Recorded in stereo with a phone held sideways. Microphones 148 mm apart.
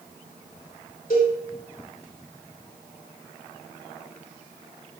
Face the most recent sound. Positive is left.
turn(degrees=70)  # may be behind; listen again after turning